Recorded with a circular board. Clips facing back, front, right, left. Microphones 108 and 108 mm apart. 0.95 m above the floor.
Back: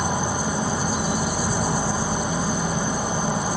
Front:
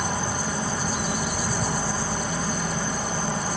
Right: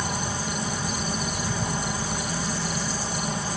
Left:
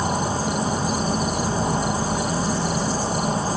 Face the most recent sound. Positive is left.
turn(degrees=115)